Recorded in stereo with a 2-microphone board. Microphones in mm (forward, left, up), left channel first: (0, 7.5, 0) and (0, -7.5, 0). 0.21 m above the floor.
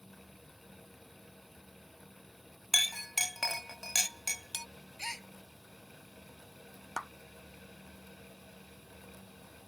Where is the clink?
Centre (ahead or behind).